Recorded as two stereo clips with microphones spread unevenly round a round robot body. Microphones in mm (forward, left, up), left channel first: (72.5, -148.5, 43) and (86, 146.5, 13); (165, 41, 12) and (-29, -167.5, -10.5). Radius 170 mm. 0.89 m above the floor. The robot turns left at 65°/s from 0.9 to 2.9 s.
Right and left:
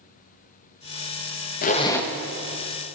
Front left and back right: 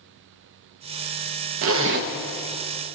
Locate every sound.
1.6 s a zipper: 155° right, 0.8 m; by 2.1 s 170° left, 0.8 m